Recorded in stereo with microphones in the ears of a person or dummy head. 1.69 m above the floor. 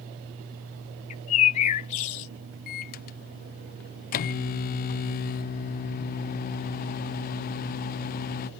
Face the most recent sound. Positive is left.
turn(degrees=50)  # may be behind; listen again after turning